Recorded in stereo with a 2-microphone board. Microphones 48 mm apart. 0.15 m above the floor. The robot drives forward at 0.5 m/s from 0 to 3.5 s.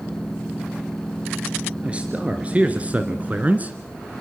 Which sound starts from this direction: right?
A man speaking, at 1.8 s.